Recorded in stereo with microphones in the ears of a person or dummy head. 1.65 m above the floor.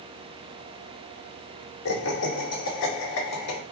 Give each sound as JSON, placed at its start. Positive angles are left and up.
{"t": 1.9, "sound": "laughter", "side_deg": 80, "distance_m": 2.0}